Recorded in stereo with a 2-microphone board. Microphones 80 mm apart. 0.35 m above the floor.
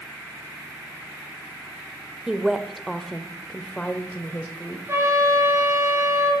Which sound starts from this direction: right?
A trumpet, at 4.9 s.